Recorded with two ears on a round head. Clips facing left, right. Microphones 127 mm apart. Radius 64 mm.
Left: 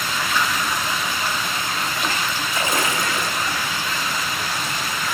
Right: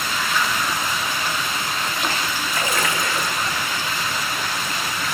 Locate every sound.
2.5 s a splash: 25° left (ahead or behind), 2.0 m